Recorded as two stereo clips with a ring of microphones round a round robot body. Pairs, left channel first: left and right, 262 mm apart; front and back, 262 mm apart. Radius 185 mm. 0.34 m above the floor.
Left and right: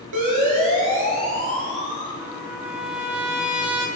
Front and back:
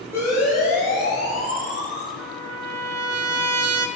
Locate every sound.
0.1 s a siren: 95° right, 8.5 m; by 2.1 s 115° right, 8 m
2.2 s a trumpet: 175° right, 1.3 m